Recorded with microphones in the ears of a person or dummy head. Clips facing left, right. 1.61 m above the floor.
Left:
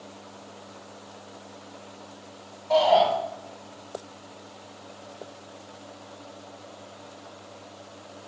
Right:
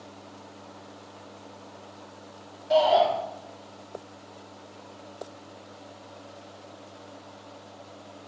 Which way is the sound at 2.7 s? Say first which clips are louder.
Left 1 dB; 10° right (ahead or behind).